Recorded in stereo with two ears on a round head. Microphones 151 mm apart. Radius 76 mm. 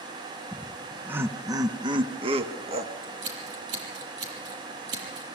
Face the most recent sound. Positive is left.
turn(degrees=-75)  # may be behind; listen again after turning